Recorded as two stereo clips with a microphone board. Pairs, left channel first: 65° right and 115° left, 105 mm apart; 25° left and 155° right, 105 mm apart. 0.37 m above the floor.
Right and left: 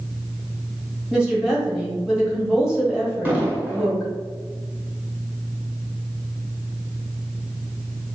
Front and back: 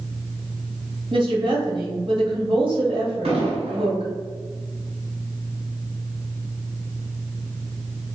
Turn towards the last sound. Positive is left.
turn(degrees=-175)